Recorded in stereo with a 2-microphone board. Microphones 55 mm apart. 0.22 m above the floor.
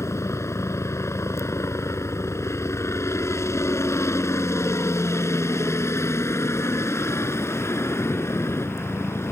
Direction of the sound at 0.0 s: 60° left (ahead or behind).